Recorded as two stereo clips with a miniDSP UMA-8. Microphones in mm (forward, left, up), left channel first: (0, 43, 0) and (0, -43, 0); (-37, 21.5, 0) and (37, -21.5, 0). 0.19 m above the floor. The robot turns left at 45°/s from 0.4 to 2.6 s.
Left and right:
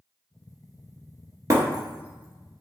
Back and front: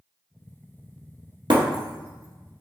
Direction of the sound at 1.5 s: 40° right.